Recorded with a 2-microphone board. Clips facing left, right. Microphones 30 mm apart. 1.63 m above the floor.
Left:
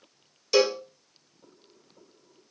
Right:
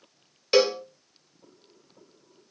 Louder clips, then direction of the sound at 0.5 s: Right 1 dB; 40° right (ahead or behind).